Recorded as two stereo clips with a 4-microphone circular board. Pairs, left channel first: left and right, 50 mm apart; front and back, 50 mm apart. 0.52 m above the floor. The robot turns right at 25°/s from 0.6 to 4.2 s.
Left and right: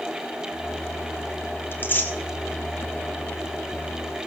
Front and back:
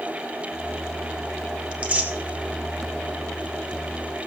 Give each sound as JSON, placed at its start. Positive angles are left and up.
{"t": 1.7, "sound": "tearing paper", "azimuth_deg": 120, "distance_m": 1.9}